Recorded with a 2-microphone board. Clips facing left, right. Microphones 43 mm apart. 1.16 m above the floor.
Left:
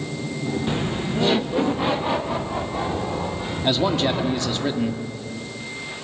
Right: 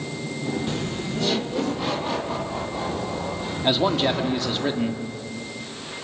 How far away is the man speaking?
About 1.9 m.